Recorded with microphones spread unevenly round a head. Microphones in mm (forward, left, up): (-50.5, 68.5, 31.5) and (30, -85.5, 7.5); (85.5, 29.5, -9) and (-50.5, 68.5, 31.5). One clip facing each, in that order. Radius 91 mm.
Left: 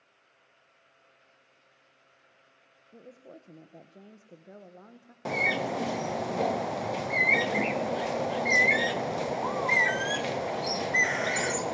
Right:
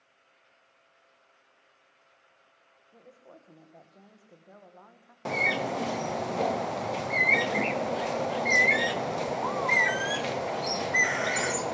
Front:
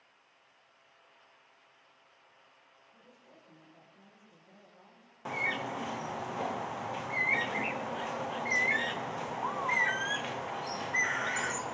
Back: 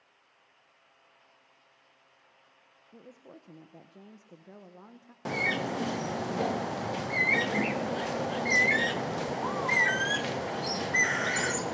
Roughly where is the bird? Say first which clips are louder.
Even, back 5 dB; behind.